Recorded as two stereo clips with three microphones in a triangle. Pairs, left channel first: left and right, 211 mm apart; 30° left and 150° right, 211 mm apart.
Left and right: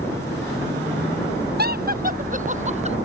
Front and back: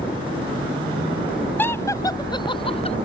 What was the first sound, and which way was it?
Laughter, 50° right.